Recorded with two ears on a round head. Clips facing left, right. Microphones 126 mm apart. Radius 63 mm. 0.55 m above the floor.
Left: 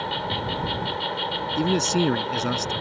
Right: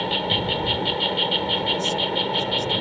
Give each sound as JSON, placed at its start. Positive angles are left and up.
{"t": 0.0, "sound": "an insect", "side_deg": -25}
{"t": 1.6, "sound": "a man speaking", "side_deg": 80}